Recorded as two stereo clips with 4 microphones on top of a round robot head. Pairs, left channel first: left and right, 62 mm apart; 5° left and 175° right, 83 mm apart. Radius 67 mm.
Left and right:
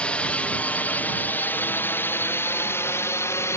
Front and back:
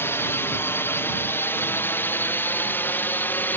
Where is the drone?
35° left; by 3.6 s 65° left.